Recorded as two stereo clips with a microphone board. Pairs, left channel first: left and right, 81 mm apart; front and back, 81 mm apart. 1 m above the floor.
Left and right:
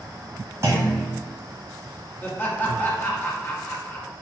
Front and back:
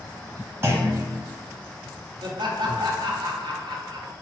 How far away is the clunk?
About 1.3 m.